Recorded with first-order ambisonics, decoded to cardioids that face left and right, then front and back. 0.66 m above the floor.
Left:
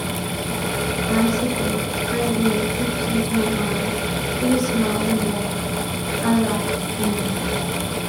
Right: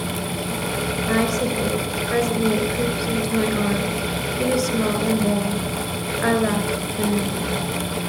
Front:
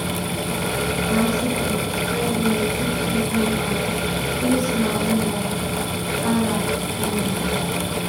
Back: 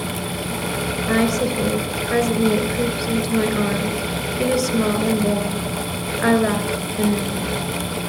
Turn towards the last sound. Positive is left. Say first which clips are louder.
# right 1 dB, back 5 dB
turn(degrees=-145)